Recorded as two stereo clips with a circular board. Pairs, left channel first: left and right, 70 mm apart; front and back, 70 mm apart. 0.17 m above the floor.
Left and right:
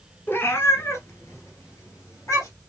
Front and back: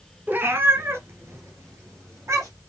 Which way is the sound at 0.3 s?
130° left.